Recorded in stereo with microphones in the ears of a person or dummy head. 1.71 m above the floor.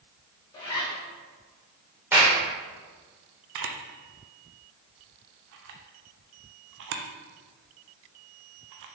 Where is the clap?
5° right (ahead or behind), 1.7 m.